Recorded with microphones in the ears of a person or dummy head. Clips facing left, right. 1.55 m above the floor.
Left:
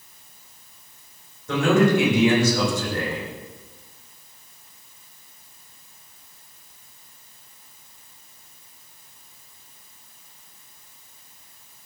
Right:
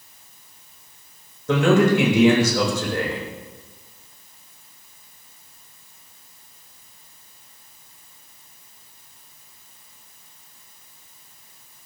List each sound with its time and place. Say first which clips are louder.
1.5 s a man speaking: right 2 dB; 60° right (ahead or behind), 2.5 m